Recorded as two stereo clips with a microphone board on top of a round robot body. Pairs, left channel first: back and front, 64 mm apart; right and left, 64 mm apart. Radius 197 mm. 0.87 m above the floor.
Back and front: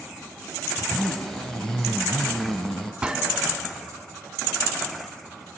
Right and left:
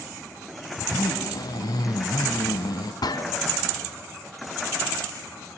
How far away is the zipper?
About 1.0 m.